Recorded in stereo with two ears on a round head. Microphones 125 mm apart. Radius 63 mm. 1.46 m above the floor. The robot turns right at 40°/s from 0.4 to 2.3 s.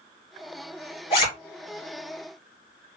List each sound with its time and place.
1.1 s a zipper: 45° left (ahead or behind), 3 m; by 1.3 s 35° left (ahead or behind), 3 m